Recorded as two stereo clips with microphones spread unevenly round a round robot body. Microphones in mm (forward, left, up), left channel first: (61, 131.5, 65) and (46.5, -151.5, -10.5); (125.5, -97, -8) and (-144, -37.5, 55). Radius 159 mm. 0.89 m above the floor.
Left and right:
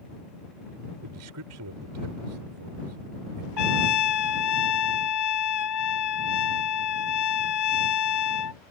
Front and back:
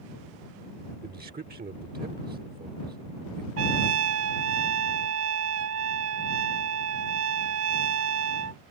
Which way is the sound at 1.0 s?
130° right.